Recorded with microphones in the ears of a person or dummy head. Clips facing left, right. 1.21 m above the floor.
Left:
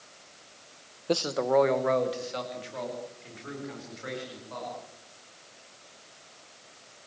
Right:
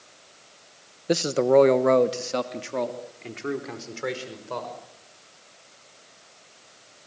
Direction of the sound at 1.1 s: 10° right (ahead or behind).